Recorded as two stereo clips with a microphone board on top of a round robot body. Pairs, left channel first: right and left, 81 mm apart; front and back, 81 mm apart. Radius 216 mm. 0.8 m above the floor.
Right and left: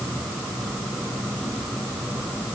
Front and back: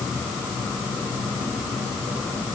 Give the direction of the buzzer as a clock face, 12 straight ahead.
I don't hear a buzzer.